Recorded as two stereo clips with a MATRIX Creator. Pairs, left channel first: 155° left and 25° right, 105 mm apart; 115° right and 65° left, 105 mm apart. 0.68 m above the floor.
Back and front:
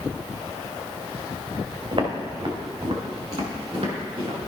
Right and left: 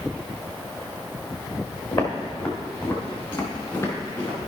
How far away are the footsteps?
About 2.5 m.